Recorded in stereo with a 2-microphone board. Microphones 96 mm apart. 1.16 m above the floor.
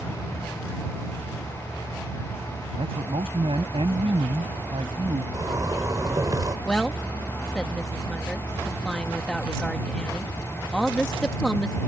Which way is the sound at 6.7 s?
10° left (ahead or behind).